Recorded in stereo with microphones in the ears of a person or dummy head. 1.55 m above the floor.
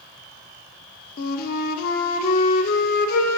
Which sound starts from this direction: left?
A flute, at 1.2 s.